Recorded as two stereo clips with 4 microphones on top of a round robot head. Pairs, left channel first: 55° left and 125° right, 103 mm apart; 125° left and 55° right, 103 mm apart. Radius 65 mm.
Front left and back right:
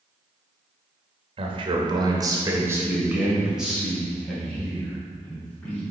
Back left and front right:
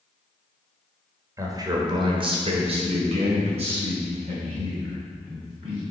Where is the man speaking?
110° right, 1.7 m; by 5.8 s 25° right, 4 m.